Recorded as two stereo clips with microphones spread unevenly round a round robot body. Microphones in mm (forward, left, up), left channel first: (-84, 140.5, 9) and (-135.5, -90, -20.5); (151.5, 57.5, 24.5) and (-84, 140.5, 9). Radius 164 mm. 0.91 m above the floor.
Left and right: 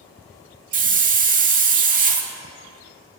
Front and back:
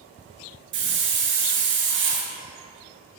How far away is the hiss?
About 1.0 m.